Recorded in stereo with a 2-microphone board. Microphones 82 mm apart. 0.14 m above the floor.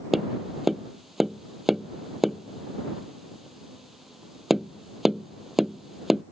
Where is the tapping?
5° right (ahead or behind).